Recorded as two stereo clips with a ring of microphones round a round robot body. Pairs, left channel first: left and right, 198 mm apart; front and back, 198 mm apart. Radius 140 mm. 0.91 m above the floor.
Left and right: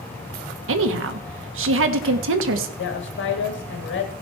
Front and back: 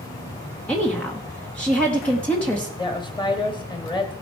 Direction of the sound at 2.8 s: 70° left.